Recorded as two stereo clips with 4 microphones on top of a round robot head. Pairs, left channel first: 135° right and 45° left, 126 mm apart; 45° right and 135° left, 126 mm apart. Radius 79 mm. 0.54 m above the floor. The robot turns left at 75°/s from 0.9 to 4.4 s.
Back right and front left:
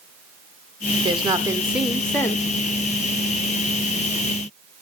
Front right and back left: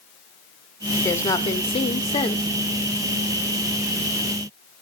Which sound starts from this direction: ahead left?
A woman speaking, at 1.0 s.